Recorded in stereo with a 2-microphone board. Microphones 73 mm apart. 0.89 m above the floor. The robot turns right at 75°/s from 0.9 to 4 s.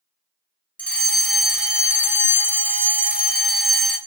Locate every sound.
0.8 s a fire alarm: 145° left, 1.7 m; by 4.0 s 15° left, 1.7 m